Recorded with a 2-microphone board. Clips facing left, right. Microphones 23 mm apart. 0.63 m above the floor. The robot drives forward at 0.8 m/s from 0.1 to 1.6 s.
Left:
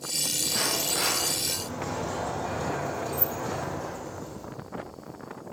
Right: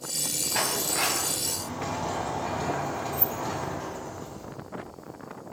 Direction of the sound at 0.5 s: 55° right (ahead or behind).